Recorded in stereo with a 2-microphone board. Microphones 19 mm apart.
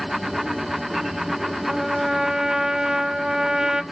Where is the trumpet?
35° right (ahead or behind), 0.5 m.